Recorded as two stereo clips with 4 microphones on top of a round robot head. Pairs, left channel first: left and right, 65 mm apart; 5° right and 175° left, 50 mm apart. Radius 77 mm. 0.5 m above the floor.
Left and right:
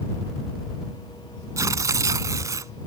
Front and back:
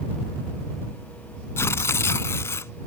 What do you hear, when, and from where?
1.6 s tearing paper: 45° right